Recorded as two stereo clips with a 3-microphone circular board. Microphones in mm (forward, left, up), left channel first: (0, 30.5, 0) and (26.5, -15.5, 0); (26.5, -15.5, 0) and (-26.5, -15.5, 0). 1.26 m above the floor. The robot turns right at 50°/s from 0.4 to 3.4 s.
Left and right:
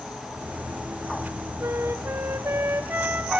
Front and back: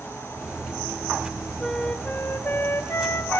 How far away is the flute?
About 0.7 m.